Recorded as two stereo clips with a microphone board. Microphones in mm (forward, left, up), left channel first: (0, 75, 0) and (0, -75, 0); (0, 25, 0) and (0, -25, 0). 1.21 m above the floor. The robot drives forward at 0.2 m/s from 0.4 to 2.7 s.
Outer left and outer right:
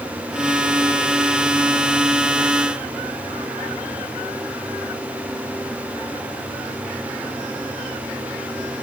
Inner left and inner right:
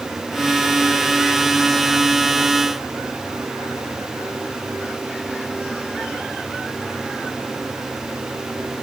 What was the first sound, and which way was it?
Only background noise.